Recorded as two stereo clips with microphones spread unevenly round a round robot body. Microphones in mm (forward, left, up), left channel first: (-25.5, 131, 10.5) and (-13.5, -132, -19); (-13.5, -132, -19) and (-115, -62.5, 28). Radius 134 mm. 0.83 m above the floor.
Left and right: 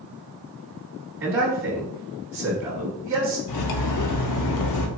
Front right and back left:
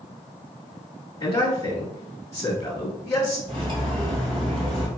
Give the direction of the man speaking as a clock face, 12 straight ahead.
12 o'clock.